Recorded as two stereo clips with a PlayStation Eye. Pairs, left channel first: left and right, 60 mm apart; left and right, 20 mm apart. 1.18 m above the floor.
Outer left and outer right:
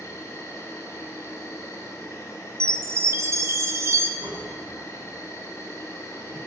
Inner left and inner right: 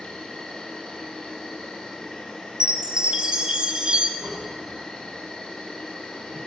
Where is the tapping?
60° right (ahead or behind), 3.5 m.